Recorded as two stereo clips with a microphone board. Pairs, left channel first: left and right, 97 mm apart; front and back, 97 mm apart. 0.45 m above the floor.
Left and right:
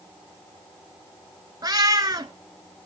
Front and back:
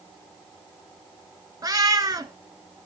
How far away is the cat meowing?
About 0.9 m.